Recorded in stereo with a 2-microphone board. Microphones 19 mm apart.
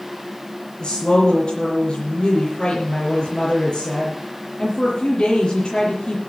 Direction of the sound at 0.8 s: 45° left (ahead or behind).